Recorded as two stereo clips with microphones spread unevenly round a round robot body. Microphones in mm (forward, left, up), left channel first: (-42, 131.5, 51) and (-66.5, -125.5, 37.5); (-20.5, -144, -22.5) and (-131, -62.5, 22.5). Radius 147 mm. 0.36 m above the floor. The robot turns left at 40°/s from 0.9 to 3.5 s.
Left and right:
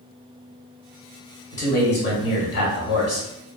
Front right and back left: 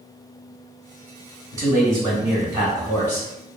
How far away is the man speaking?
About 1.4 m.